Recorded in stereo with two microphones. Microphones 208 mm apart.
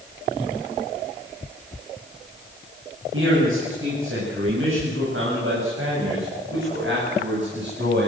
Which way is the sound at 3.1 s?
75° right (ahead or behind).